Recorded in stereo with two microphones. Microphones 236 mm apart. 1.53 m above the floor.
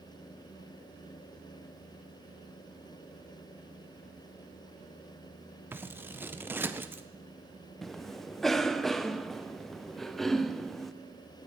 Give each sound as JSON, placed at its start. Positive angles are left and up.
{"t": 5.7, "sound": "scissors", "side_deg": -10, "distance_m": 0.5}
{"t": 7.8, "sound": "a cough", "side_deg": 0, "distance_m": 0.6}